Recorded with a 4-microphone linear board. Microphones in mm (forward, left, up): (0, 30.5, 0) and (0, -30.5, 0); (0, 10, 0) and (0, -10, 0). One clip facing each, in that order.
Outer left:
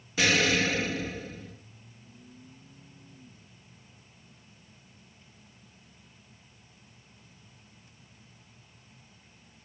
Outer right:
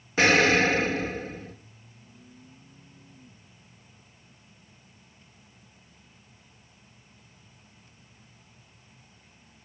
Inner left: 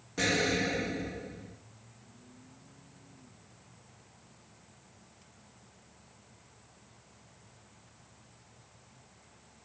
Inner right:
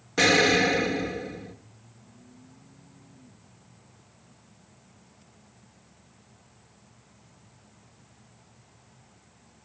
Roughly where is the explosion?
Right.